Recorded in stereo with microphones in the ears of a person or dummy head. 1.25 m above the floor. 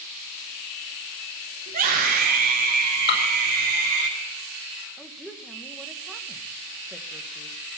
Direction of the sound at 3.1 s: 65° left (ahead or behind).